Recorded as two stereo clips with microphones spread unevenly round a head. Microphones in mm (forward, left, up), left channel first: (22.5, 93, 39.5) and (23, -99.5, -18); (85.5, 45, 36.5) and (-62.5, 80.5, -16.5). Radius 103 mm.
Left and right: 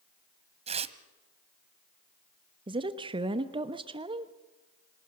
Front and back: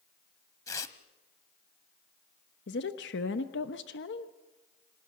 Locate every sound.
0.7 s tearing paper: 25° right, 1.0 m
2.7 s a woman speaking: 25° right, 0.9 m